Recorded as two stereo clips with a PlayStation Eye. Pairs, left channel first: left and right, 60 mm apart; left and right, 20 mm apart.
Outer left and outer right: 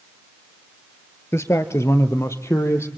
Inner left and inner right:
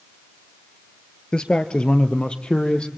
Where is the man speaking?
45° left (ahead or behind), 1.5 m; by 2.9 s 50° left (ahead or behind), 3 m.